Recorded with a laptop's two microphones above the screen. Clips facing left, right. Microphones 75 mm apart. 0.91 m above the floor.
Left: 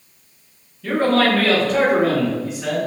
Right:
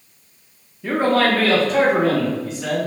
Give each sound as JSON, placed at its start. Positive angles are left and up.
{"t": 0.8, "sound": "a man speaking", "side_deg": -25, "distance_m": 0.7}